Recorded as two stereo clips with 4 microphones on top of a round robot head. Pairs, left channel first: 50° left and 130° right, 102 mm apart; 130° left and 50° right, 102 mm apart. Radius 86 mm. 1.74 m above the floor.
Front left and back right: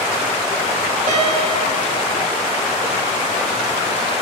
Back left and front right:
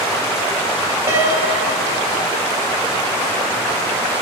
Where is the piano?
110° right, 3.5 m.